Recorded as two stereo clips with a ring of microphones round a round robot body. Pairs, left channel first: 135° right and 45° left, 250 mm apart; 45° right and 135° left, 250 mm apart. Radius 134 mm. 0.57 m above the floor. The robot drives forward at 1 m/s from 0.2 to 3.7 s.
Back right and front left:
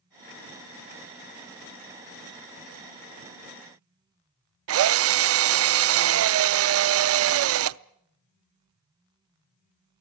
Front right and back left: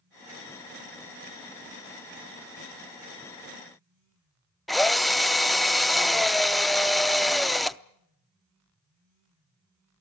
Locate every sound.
4.7 s a drill: 45° left, 0.6 m